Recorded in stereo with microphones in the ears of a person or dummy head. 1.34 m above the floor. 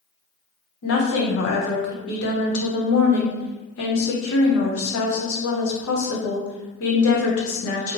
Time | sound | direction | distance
0.8 | a woman speaking | 75° left (ahead or behind) | 0.8 m